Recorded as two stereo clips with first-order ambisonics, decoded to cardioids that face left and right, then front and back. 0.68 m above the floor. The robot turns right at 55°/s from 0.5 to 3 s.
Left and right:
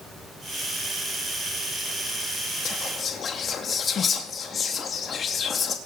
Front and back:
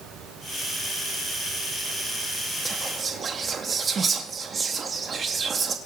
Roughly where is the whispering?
Left.